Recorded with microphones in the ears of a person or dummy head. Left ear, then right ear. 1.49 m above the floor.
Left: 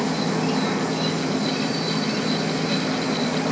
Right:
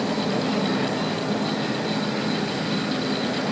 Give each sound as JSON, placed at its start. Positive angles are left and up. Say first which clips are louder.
{"t": 0.0, "sound": "an insect", "louder": "left 1 dB", "side_deg": 70, "distance_m": 0.9}